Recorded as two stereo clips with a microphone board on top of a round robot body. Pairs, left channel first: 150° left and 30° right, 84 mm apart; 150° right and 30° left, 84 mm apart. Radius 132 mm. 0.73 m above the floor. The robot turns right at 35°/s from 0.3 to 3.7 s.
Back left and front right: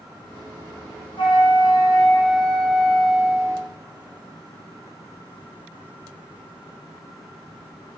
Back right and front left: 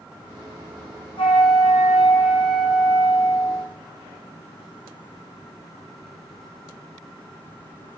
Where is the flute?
Straight behind, 1.1 m; by 3.7 s 90° right, 1.1 m.